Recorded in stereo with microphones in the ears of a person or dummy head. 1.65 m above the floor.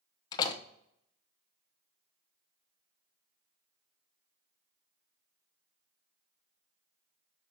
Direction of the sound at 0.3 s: 25° left (ahead or behind).